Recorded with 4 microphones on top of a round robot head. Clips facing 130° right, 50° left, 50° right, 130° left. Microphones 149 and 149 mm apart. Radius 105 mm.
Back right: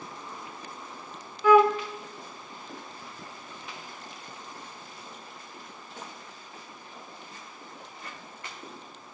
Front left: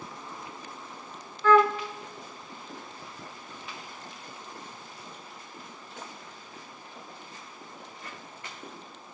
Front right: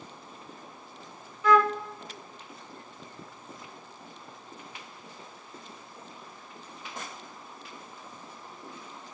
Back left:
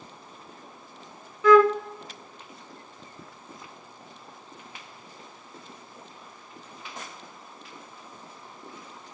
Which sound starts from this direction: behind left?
A flute, at 1.4 s.